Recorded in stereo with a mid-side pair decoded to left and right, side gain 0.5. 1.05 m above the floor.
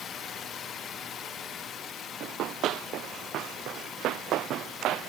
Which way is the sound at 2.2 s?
65° right.